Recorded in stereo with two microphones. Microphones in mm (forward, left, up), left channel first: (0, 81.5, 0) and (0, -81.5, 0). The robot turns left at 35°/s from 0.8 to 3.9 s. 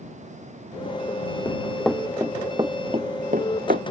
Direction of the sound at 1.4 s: 15° left (ahead or behind).